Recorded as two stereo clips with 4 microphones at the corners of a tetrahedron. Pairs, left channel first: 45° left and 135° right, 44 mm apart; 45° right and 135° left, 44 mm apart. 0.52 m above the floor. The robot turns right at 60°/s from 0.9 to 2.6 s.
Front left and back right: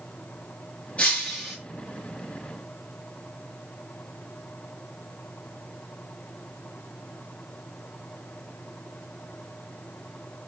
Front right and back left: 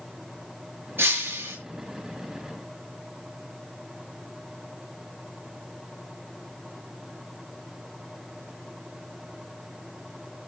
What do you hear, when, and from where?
1.0 s breaking glass: 100° left, 6 m; by 1.6 s 135° left, 6 m